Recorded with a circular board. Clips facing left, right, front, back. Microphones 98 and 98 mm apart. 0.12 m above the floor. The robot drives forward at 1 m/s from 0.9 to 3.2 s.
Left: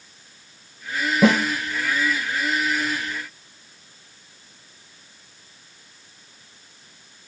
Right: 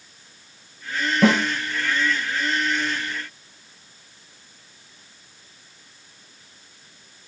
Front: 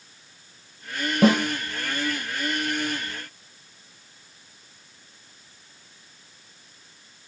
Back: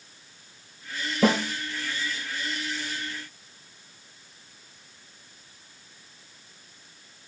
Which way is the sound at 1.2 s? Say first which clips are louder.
Left 1 dB, front 4 dB; 5° left.